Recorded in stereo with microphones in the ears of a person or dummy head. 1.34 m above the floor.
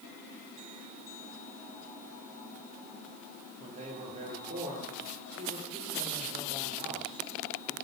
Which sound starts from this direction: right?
A man speaking, at 3.6 s.